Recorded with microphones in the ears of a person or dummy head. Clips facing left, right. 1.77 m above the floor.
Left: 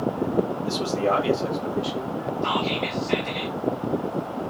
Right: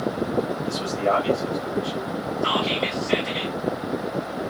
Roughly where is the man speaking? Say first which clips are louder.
Even; left.